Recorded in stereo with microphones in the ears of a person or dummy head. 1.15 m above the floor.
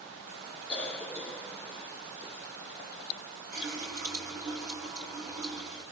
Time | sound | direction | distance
0.7 | a cough | 5° left (ahead or behind) | 1.0 m
3.5 | a running tap | 45° right (ahead or behind) | 3 m